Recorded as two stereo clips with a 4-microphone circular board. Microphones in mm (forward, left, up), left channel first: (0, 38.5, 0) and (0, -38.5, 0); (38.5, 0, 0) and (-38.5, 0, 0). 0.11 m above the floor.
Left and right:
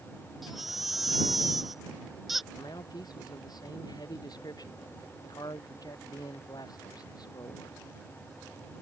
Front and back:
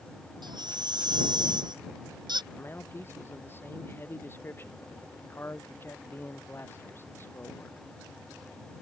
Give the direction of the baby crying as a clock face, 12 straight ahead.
6 o'clock.